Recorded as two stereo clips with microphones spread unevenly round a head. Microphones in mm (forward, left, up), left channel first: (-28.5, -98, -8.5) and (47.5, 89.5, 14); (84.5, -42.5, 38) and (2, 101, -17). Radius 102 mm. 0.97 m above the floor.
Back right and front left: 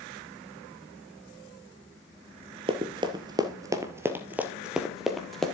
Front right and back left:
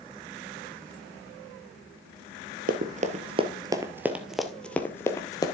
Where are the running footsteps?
95° left, 1.1 m; by 5.5 s 20° right, 1.5 m.